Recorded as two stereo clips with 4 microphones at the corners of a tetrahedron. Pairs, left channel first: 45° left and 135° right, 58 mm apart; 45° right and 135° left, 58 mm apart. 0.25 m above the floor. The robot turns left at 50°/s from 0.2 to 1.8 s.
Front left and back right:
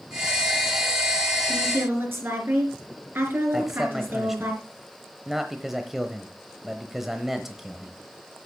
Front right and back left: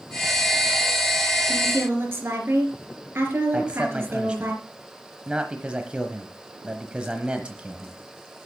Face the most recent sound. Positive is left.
turn(degrees=150)